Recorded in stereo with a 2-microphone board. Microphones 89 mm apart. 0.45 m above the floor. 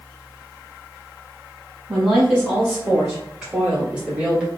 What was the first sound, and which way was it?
A woman speaking, 5° right (ahead or behind).